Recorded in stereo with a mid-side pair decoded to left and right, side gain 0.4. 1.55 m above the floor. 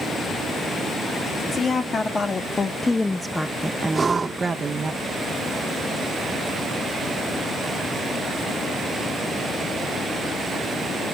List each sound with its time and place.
1.5 s a woman speaking: 50° left, 1.4 m; by 4.9 s 50° right, 1.1 m
3.9 s breathing: 35° right, 1.4 m